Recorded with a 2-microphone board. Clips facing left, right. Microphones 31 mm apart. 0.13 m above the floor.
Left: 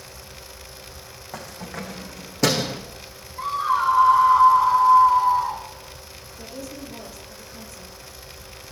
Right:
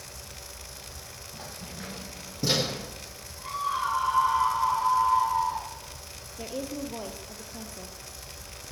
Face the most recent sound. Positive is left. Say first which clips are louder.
# right 3 dB
turn(degrees=-25)  # may be behind; listen again after turning